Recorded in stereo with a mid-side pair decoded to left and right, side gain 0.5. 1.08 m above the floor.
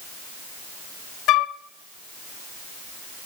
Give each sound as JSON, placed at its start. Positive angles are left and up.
{"t": 1.3, "sound": "a flute", "azimuth_deg": 70, "distance_m": 0.5}